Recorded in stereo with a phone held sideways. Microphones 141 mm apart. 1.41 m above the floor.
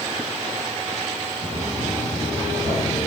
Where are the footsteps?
70° right (ahead or behind), 4 m; by 3.1 s 65° right (ahead or behind), 3.5 m.